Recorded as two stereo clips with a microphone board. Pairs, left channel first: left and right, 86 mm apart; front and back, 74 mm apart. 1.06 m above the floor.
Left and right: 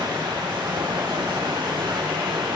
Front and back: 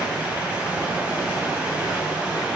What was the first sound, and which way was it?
Running water, 110° right.